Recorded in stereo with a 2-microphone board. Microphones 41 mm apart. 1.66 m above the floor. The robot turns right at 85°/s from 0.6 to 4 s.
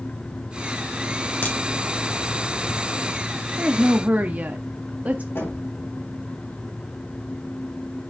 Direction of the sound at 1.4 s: 55° left (ahead or behind).